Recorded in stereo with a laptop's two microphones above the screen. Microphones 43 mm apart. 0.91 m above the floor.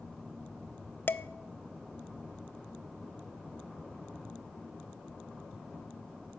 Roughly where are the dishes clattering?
Left.